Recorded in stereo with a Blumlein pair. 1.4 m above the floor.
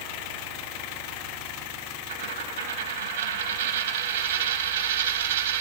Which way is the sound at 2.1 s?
55° right.